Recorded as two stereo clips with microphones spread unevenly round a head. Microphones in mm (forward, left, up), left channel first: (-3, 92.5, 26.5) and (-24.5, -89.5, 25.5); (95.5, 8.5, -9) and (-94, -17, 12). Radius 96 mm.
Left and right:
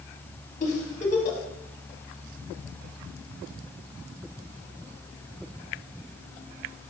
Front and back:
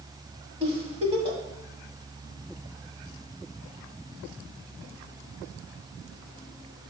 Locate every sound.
0.6 s a giggle: 130° left, 1.1 m